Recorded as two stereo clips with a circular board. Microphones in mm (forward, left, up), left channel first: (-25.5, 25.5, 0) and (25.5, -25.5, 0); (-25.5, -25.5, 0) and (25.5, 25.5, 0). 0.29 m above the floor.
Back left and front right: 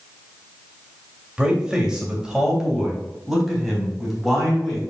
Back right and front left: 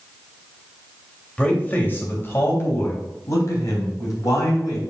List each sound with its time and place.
1.4 s a man speaking: 95° right, 1.6 m; by 4.8 s 135° right, 3 m